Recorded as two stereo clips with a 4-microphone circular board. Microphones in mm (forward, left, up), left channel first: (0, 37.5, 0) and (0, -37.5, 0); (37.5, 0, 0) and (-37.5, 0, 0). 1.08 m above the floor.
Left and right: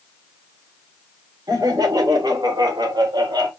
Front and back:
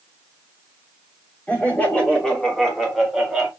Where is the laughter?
65° right, 2.5 m; by 3.5 s 95° right, 2 m.